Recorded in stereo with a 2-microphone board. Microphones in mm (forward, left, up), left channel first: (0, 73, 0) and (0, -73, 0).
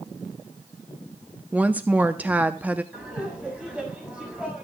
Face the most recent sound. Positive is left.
turn(degrees=-10)  # may be behind; listen again after turning